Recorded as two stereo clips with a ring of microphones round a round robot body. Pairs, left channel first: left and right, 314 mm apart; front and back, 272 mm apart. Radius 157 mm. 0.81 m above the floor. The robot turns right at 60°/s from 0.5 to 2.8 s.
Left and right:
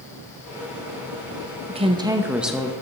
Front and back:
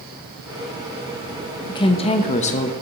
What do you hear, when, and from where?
1.7 s a woman speaking: 50° right, 1.0 m; by 2.7 s 10° left, 1.0 m